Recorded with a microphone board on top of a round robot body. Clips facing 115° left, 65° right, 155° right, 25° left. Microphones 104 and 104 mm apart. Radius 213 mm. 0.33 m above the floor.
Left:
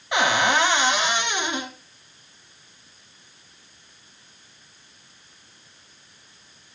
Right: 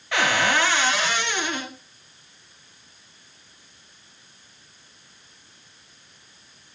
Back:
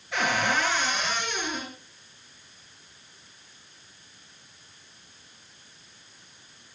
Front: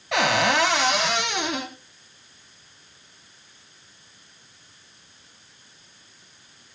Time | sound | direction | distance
0.1 | a cupboard door | 40° left | 1.5 m